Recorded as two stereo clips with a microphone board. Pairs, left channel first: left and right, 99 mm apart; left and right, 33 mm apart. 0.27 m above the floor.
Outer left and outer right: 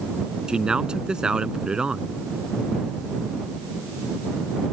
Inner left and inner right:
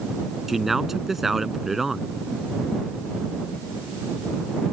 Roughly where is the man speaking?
Centre.